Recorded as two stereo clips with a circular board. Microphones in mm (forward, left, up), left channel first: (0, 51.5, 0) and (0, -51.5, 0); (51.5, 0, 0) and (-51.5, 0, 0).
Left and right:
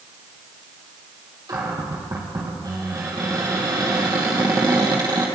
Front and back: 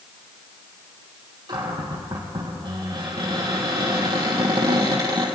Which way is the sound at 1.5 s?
140° right.